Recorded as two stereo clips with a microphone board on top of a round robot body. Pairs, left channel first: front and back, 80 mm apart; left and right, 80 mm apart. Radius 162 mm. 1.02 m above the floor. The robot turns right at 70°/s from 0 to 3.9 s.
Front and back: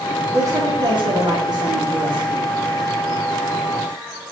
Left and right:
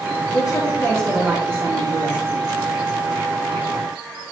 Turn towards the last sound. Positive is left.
turn(degrees=25)